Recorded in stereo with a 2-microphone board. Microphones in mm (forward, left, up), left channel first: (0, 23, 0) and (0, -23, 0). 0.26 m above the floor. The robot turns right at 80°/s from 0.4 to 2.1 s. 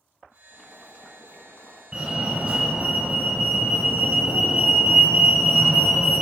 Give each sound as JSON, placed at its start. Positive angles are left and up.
{"t": 0.5, "sound": "boiling", "azimuth_deg": 15, "distance_m": 1.4}
{"t": 1.9, "sound": "a fire alarm", "side_deg": -15, "distance_m": 1.9}